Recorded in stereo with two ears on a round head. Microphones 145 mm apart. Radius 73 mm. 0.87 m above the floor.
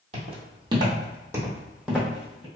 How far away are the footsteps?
About 1.3 m.